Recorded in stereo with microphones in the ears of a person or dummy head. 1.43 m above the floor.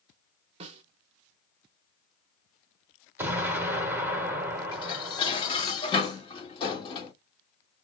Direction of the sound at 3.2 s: 10° right (ahead or behind).